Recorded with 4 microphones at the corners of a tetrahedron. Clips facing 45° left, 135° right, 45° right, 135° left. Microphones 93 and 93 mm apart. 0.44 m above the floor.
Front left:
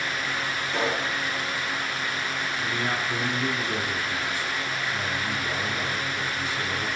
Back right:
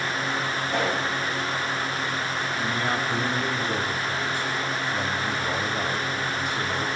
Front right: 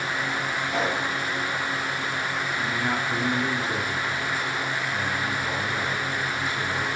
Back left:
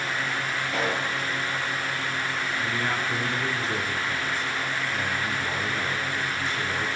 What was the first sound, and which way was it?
A pop, 120° right.